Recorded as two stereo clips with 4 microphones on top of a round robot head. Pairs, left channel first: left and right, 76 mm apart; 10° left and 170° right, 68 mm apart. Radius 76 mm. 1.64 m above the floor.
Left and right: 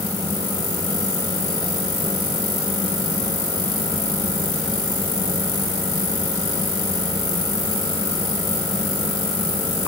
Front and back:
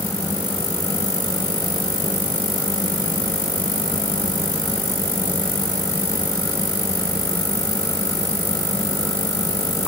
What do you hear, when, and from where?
Only background noise.